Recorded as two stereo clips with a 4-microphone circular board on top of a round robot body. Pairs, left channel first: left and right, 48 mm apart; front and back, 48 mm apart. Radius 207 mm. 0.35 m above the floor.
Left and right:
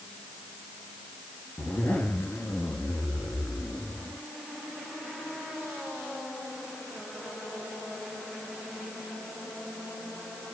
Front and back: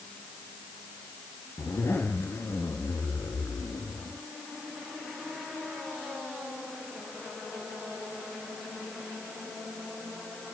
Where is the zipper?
35° left, 1.1 m.